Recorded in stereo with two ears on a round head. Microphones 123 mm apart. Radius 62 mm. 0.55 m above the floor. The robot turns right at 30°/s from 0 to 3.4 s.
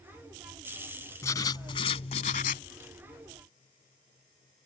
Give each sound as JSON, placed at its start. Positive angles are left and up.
{"t": 1.2, "sound": "writing", "azimuth_deg": 20}